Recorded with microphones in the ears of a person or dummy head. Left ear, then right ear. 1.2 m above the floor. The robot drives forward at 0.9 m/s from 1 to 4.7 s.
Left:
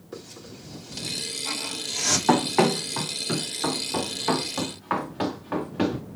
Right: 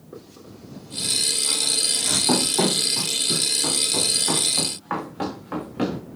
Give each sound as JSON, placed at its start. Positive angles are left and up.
{"t": 0.1, "sound": "a hiss", "side_deg": 65, "distance_m": 3.0}
{"t": 2.3, "sound": "running footsteps", "side_deg": 60, "distance_m": 2.5}